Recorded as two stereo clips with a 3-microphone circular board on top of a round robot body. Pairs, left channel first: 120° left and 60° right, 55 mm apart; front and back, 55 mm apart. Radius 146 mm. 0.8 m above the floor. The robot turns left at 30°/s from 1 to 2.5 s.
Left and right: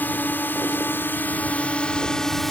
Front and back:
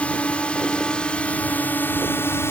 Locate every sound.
0.0 s a drone: 65° left; by 2.5 s 35° left